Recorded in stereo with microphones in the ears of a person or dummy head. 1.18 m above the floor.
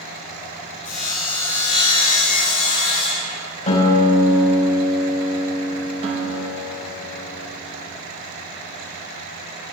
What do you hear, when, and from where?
0.8 s sawing: 35° left (ahead or behind), 1.6 m
3.7 s a guitar: 30° left (ahead or behind), 3.5 m
6.0 s a guitar: 30° right (ahead or behind), 1.3 m